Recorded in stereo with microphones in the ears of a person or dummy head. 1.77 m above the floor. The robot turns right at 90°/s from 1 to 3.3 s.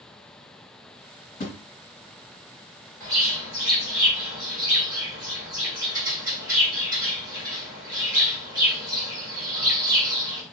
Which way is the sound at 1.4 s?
35° left (ahead or behind).